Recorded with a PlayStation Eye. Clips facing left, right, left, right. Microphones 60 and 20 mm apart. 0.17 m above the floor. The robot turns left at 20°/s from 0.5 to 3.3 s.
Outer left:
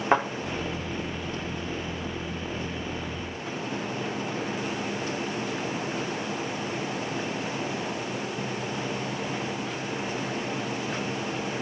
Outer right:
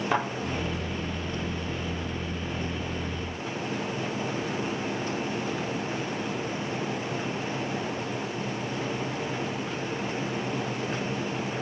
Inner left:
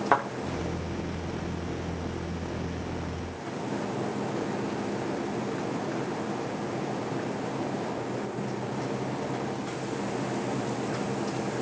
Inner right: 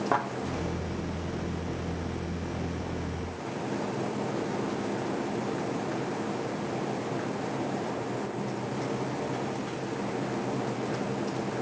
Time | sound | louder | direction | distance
0.1 | a thud | outer left 5 dB, inner left 4 dB | 30° left (ahead or behind) | 7 m